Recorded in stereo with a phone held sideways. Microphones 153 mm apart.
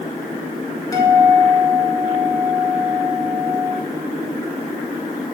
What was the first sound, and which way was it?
A guitar, 20° left (ahead or behind).